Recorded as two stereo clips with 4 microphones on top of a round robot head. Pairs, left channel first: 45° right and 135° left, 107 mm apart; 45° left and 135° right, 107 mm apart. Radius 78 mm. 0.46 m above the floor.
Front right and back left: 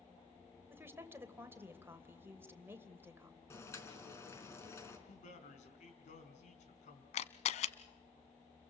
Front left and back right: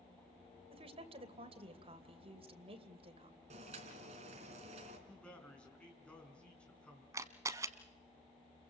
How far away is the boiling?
About 4 m.